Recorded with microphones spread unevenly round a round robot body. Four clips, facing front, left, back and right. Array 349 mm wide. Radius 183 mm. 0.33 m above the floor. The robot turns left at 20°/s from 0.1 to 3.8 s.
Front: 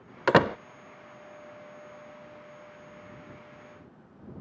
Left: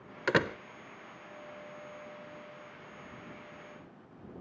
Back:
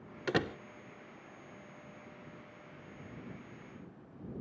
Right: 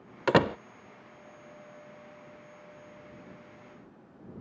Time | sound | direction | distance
0.3 | a door slam | 20° right | ?